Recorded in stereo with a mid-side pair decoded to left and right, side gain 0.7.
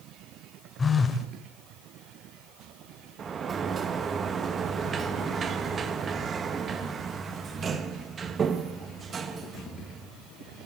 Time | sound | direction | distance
0.8 | a phone buzzing | 20° left | 2.5 m
3.2 | a sliding door | 30° right | 1.8 m